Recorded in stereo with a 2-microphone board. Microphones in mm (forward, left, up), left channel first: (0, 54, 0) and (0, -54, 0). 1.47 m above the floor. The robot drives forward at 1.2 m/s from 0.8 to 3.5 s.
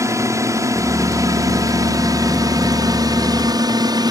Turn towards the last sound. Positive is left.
turn(degrees=-35)  # may be behind; listen again after turning